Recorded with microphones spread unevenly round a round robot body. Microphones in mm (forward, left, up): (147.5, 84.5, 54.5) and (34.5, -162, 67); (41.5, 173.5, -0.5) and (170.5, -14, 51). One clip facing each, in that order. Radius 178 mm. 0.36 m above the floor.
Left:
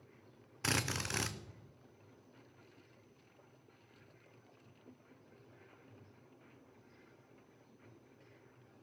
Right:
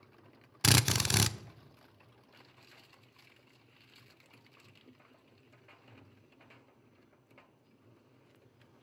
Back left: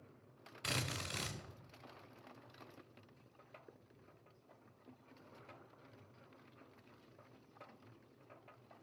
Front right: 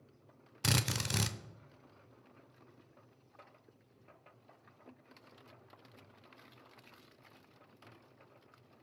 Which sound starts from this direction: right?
A drill, at 0.6 s.